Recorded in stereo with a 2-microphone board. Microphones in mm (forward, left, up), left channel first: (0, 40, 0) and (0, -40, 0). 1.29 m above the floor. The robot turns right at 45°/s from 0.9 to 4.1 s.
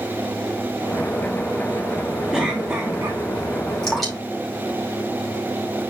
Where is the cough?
175° right, 2 m; by 3.2 s 135° right, 2 m.